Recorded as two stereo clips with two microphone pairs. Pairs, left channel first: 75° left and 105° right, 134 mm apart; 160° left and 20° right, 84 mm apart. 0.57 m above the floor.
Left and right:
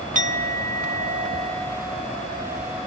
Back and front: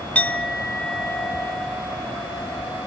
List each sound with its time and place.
0.1 s a clink: 125° right, 1.2 m